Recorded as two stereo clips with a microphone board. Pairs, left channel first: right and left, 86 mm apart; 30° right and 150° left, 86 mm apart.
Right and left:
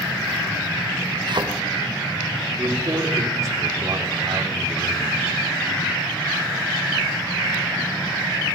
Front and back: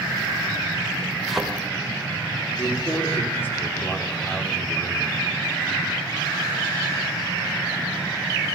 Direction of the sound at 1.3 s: 60° left.